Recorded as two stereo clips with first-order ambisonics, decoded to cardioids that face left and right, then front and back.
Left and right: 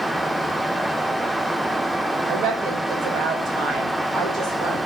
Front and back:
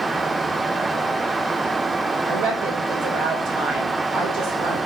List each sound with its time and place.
2.3 s a woman speaking: 140° right, 3 m